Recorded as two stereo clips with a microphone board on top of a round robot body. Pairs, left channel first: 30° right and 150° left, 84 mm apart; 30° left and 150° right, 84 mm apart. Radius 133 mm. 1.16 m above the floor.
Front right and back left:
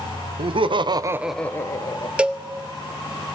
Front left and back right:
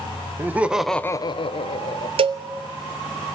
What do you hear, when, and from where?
0.4 s laughter: 145° left, 1.2 m; by 2.1 s 15° left, 1.3 m
2.2 s a cowbell: 130° right, 0.6 m